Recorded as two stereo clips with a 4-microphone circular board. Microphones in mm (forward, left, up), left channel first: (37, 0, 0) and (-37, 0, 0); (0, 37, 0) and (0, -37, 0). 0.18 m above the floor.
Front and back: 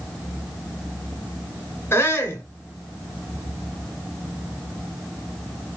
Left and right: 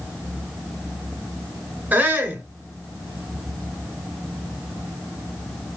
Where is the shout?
35° right, 2 m.